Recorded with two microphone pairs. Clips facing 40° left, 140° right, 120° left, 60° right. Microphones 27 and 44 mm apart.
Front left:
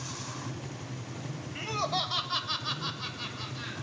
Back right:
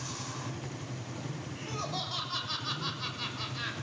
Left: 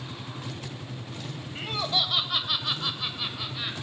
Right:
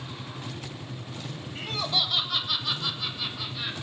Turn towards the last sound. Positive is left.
turn(degrees=-175)